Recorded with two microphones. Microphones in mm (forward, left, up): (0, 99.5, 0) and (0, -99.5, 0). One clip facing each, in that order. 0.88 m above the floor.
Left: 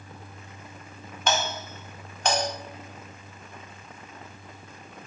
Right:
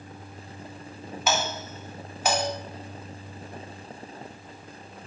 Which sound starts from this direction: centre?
A doorbell, at 1.3 s.